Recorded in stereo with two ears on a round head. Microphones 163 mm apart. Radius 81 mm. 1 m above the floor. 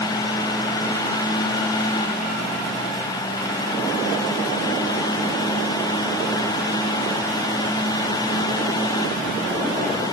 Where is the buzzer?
No buzzer in this recording.